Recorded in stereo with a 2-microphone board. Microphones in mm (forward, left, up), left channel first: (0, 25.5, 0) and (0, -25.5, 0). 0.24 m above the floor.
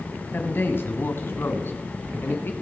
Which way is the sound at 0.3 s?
45° left (ahead or behind).